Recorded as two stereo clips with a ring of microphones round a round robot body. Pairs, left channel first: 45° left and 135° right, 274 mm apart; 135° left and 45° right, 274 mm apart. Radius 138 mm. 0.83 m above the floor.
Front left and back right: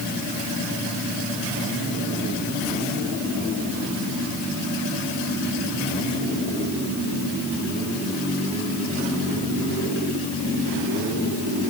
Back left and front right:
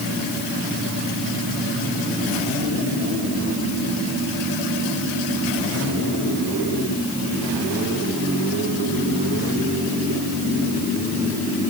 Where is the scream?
No scream in this recording.